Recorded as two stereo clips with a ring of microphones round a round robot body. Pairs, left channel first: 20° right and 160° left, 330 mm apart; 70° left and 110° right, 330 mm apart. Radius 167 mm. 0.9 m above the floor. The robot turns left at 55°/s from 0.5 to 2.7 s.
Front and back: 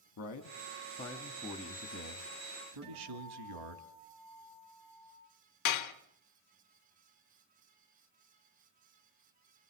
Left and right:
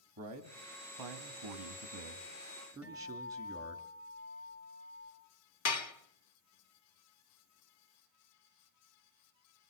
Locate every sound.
0.2 s a man speaking: 70° right, 2 m; by 3.8 s 170° left, 2 m
2.8 s a guitar: 95° left, 6.5 m
5.7 s dishes clattering: 20° left, 1.1 m